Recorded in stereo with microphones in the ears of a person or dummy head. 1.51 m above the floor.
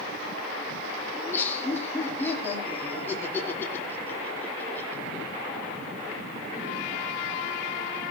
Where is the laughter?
10° left (ahead or behind), 4 m.